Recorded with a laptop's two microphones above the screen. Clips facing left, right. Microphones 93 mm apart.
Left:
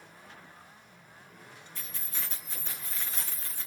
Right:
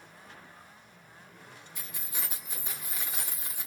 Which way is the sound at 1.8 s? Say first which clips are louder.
Right 1 dB; 15° right (ahead or behind).